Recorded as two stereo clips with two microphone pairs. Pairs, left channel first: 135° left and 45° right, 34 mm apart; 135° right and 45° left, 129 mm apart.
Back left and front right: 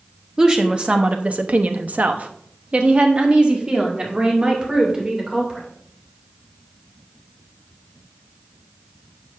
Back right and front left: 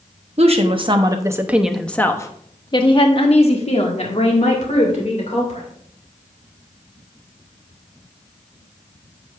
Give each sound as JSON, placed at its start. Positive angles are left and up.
{"t": 0.4, "sound": "a woman speaking", "azimuth_deg": 20, "distance_m": 1.1}